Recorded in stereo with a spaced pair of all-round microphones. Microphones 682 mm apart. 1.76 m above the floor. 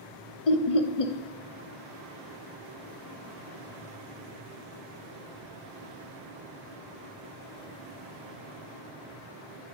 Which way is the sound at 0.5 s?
55° left (ahead or behind).